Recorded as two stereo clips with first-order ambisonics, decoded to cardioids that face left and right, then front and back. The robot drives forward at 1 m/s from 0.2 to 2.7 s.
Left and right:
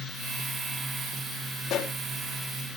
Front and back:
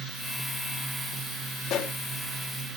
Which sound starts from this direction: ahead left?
A pop, at 1.7 s.